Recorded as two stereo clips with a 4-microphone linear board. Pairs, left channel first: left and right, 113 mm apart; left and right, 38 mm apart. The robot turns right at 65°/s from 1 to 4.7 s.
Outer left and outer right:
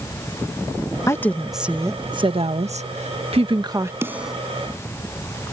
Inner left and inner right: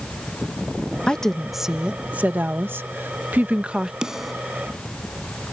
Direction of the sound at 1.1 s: 155° left.